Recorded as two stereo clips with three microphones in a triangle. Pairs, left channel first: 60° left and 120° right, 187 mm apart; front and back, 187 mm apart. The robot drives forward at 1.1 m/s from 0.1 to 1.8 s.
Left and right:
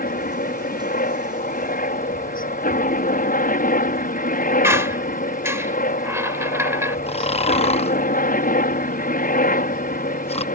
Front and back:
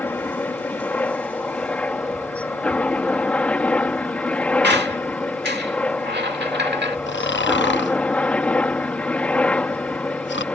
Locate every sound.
0.0 s a helicopter: 80° left
4.6 s a squeak: 165° left
7.1 s snoring: straight ahead